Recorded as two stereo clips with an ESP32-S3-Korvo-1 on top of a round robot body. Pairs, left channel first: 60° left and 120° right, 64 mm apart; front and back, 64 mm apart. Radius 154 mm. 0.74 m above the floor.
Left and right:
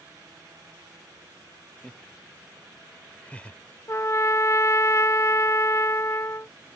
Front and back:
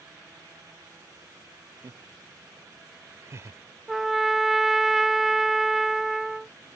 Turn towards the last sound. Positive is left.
turn(degrees=95)